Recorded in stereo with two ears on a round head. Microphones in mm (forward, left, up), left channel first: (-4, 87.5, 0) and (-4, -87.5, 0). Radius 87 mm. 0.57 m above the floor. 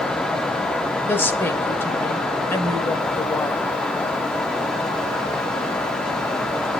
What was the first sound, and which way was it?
A woman speaking, 10° left (ahead or behind).